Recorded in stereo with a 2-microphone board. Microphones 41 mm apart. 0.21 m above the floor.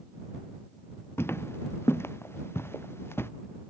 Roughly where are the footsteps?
Left.